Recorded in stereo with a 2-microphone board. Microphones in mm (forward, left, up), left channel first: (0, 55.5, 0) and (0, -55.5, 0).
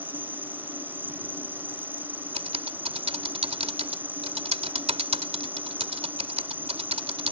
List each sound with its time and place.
0.0 s an insect: 15° right (ahead or behind)
2.4 s typing on a keyboard: 70° right (ahead or behind)